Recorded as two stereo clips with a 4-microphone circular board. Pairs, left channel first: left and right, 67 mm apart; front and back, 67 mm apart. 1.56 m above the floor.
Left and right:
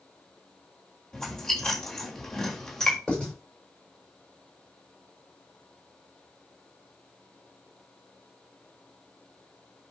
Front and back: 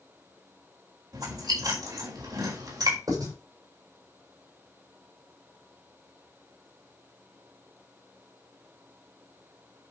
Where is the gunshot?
No gunshot in this recording.